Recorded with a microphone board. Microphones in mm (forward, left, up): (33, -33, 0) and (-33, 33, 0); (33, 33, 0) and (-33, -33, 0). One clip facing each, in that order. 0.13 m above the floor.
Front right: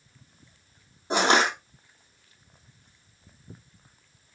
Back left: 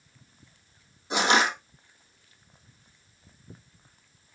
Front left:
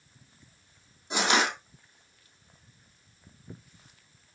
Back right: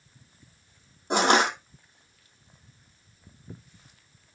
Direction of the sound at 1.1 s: 95° right.